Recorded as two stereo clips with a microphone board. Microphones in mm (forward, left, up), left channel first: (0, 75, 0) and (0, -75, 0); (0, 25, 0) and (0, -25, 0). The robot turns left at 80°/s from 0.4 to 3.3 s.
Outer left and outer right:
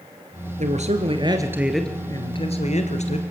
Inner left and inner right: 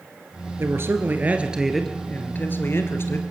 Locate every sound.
0.6 s a man speaking: 85° right, 2.5 m; by 3.2 s 65° left, 2.5 m